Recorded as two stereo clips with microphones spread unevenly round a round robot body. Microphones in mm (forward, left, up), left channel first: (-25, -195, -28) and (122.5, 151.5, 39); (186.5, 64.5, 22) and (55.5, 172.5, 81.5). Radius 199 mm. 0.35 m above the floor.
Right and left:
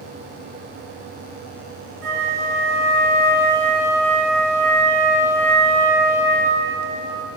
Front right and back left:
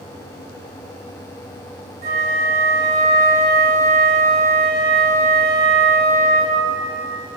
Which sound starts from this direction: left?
A flute, at 2.0 s.